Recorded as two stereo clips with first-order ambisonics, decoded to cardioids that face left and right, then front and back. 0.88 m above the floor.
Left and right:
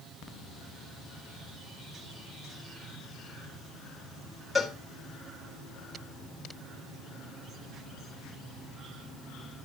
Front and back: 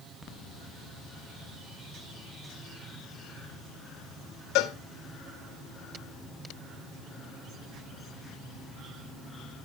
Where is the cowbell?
5° left, 1.5 m.